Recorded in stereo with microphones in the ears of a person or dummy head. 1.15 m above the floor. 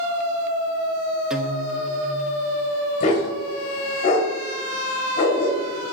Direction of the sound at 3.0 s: 45° left (ahead or behind).